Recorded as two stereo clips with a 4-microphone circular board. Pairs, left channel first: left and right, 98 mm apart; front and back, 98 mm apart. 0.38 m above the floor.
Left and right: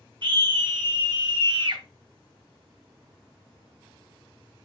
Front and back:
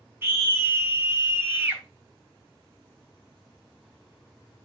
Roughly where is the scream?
Behind right.